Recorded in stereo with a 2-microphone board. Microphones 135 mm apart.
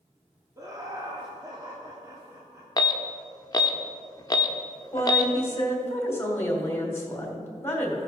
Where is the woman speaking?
20° left (ahead or behind), 2.5 m.